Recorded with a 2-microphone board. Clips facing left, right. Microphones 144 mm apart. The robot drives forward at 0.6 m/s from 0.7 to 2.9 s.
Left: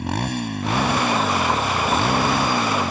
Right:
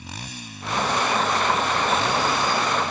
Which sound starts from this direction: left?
A motorcycle, at 0.0 s.